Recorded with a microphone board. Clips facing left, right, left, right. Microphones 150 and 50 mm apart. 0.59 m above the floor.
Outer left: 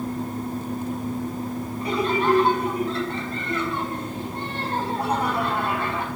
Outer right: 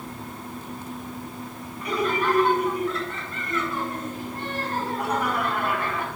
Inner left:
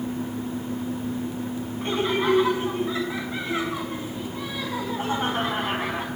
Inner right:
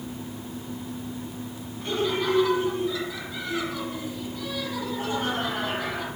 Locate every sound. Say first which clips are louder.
1.8 s laughter: outer left 2 dB, inner left 2 dB; 35° left (ahead or behind), 5.5 m